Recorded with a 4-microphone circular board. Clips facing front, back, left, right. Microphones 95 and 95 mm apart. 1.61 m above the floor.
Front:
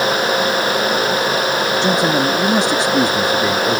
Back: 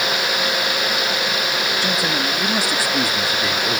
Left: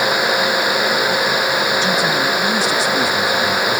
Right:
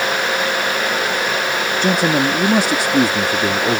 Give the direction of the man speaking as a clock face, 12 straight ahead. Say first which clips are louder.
Front 9 dB, right 1 dB; 2 o'clock.